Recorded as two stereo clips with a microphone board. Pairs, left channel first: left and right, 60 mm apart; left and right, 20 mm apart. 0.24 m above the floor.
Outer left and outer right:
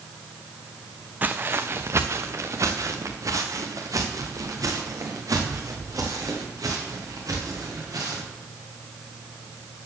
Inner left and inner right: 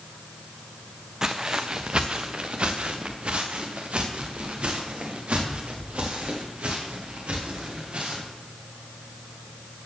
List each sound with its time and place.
1.2 s footsteps: 30° right (ahead or behind), 0.7 m; by 8.2 s 70° right (ahead or behind), 5 m